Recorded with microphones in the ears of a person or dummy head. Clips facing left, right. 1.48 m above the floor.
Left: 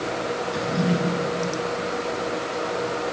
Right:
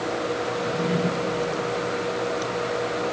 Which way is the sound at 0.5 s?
75° left (ahead or behind).